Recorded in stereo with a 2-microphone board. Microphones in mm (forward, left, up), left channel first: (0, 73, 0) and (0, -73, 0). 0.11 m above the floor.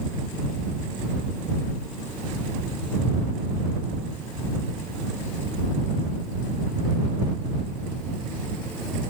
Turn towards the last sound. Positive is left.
No sound to turn to.